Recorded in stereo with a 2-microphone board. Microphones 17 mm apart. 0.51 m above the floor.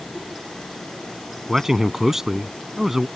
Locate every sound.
1.5 s a man speaking: 25° right (ahead or behind)